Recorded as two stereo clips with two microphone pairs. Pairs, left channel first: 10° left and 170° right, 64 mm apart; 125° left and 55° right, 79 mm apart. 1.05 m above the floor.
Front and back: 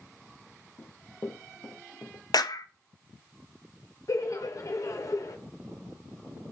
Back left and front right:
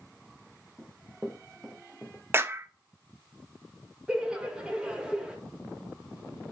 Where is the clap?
10° left, 0.6 m.